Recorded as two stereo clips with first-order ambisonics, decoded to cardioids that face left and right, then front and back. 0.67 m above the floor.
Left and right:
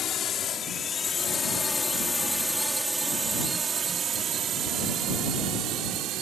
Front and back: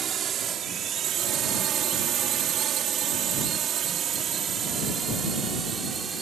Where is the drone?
130° left; by 6.2 s 115° right.